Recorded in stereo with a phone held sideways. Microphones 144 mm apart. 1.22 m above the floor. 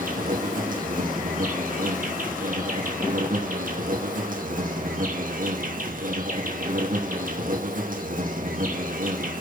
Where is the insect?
70° right (ahead or behind), 3 m.